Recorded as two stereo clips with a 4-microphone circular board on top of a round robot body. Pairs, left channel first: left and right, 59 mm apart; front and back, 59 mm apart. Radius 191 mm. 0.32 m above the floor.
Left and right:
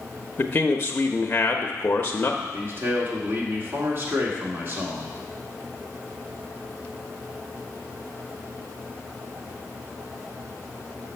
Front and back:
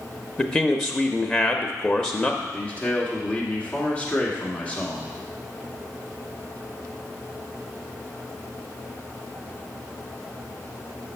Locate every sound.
0.4 s a man speaking: 55° left, 0.9 m
2.4 s a man speaking: 60° right, 1.9 m